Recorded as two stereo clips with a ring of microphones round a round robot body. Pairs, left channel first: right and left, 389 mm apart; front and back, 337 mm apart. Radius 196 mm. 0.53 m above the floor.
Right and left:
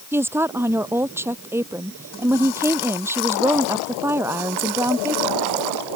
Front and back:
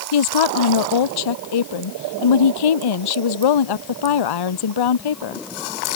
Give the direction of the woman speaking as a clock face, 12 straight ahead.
12 o'clock.